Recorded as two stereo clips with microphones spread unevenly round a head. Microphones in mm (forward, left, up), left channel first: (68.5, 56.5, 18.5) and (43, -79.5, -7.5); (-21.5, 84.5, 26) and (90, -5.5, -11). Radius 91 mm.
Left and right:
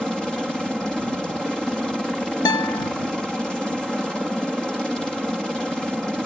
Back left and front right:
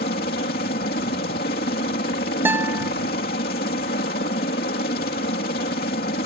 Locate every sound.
0.0 s a helicopter: 170° left
2.5 s a guitar: 45° left